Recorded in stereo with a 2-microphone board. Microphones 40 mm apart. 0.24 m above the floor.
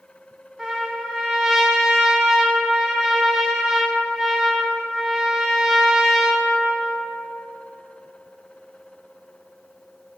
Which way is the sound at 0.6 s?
20° right (ahead or behind).